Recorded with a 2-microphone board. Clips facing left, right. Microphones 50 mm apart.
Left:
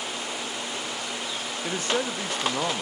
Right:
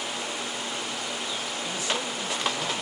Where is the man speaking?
45° left (ahead or behind), 1.6 m.